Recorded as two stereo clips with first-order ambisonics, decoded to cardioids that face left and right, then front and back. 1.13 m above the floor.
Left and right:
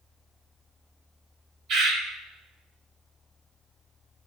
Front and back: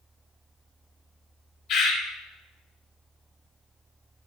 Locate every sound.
1.7 s a bird: 50° right, 3 m